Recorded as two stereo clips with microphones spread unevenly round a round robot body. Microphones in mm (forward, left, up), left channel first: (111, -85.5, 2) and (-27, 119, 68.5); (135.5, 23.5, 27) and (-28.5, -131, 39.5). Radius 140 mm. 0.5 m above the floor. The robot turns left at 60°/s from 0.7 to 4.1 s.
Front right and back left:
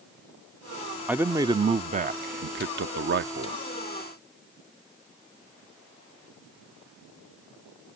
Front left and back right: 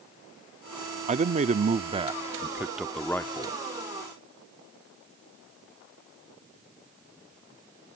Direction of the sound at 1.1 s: 125° right.